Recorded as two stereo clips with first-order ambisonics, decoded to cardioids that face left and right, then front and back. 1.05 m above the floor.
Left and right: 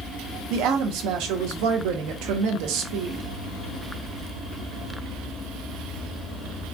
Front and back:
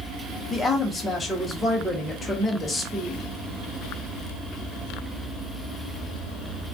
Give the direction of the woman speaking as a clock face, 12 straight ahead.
3 o'clock.